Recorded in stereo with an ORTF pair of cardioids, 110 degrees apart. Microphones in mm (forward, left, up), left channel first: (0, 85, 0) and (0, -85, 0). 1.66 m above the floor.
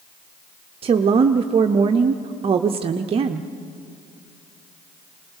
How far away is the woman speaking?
About 0.7 m.